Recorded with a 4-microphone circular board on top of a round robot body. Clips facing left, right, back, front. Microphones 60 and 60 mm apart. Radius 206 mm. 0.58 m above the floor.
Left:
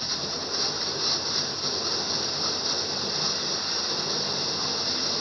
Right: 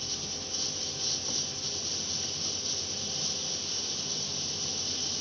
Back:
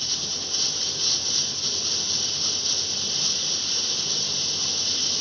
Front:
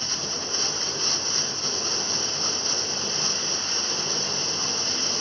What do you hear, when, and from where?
0.0 s running water: 55° left